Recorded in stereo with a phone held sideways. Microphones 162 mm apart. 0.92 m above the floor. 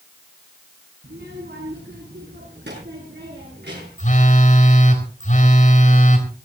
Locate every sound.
1.0 s a child speaking: 80° right, 5 m
4.0 s a phone buzzing: 50° left (ahead or behind), 3.5 m